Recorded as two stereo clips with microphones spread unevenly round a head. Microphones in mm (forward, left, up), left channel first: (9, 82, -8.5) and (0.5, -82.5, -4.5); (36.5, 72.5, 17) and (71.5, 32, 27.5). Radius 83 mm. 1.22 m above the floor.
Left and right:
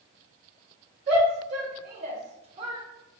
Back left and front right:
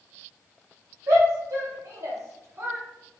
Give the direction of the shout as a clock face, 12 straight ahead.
2 o'clock.